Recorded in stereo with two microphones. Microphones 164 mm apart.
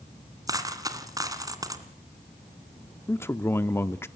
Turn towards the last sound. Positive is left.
turn(degrees=15)  # may be behind; listen again after turning